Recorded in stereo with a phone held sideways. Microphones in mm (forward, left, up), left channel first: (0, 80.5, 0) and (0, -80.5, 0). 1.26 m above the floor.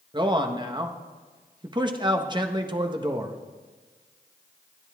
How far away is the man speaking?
About 1.2 m.